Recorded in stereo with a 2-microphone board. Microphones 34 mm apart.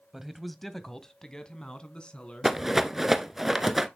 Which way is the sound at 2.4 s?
10° right (ahead or behind).